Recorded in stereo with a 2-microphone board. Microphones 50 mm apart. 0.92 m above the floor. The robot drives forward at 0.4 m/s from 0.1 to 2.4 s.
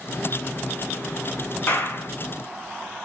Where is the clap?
40° left (ahead or behind), 1.1 m; by 2.1 s 50° left (ahead or behind), 1.0 m.